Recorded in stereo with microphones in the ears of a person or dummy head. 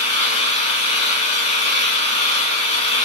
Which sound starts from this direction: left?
An engine running, at 0.0 s.